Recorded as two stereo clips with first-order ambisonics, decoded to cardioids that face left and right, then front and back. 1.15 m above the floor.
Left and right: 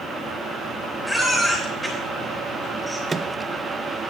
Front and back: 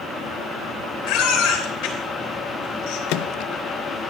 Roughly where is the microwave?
Ahead.